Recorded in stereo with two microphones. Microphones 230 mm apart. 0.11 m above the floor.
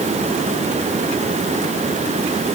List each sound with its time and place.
Only background noise.